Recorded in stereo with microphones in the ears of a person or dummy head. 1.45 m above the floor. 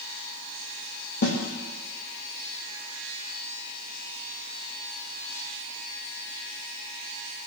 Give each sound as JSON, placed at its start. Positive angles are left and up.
{"t": 1.2, "sound": "a snare drum", "side_deg": 60, "distance_m": 2.5}